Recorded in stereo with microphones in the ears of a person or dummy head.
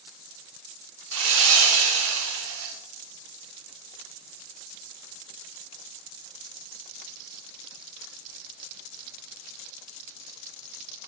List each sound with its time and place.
1.1 s sawing: 85° right, 1.1 m